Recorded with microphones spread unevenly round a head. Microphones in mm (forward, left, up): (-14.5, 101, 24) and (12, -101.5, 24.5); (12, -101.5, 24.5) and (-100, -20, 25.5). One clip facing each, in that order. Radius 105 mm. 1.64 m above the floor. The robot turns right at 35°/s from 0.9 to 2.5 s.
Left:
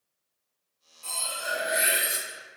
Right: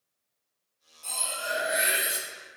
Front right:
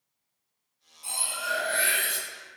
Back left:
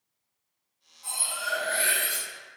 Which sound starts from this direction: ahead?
Cutlery clinking, at 1.0 s.